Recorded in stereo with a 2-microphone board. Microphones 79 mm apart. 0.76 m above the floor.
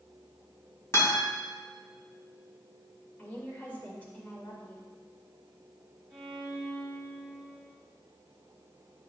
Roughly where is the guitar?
Left.